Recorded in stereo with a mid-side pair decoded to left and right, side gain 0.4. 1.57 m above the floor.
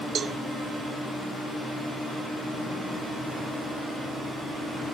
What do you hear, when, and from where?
0.1 s a cowbell: 55° right, 0.5 m